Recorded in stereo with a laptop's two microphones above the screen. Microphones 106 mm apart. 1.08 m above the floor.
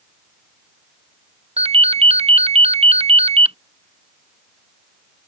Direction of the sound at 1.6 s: 70° right (ahead or behind).